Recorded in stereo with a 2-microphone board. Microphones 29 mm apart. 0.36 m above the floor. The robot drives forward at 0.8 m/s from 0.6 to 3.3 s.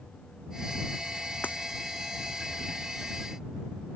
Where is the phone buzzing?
I don't hear a phone buzzing.